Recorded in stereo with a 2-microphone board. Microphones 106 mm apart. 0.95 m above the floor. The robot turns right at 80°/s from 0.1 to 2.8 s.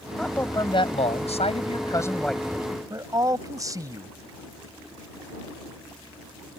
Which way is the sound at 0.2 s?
5° left.